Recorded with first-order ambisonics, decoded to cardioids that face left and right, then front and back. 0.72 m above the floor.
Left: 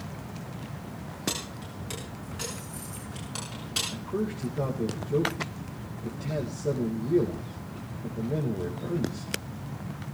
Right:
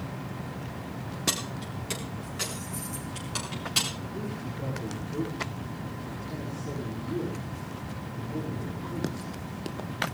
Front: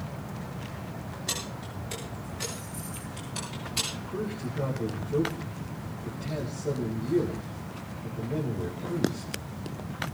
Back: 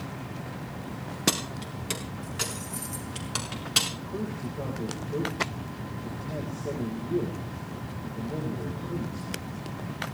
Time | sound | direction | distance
1.3 | keys jangling | 170° right | 5 m
3.9 | a man speaking | 90° left | 4 m